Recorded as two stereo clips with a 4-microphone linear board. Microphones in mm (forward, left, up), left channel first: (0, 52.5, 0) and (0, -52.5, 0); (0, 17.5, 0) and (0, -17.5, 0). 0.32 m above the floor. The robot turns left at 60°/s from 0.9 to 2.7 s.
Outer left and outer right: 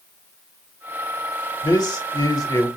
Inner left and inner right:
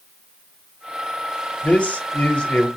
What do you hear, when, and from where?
1.6 s a man speaking: 105° left, 1.2 m; by 2.7 s 40° left, 1.2 m